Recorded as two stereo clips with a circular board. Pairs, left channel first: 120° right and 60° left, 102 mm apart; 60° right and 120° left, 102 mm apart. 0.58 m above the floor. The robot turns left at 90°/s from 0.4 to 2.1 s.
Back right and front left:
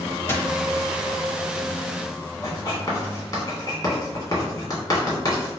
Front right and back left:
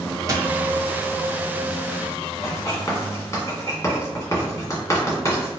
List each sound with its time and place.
0.3 s a dropped coin: 175° left, 0.7 m; by 0.5 s 165° left, 0.7 m
2.4 s writing: 95° right, 1.5 m